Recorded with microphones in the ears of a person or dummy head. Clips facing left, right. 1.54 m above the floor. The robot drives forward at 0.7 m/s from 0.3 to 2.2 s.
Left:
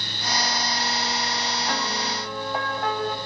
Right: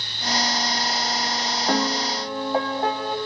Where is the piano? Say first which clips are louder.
Right 6 dB; 35° right (ahead or behind), 1.1 m; by 3.2 s 25° right (ahead or behind), 1.4 m.